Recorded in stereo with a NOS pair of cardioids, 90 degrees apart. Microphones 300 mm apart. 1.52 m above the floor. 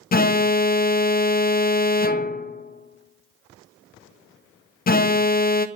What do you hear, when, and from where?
0.1 s an alarm: 30° left, 0.6 m